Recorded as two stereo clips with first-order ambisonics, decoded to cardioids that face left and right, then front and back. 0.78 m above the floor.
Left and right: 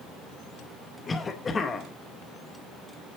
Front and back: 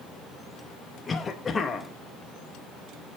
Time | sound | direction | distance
1.1 | a cough | 50° left | 0.6 m